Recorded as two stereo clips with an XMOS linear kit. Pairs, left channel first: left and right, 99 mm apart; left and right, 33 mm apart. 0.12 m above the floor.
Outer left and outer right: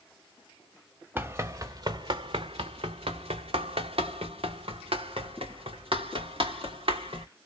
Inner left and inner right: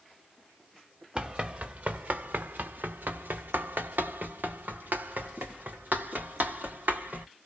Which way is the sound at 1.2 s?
20° right (ahead or behind).